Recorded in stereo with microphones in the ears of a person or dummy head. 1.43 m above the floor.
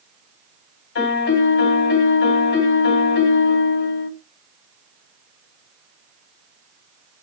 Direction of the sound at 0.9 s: 70° left (ahead or behind).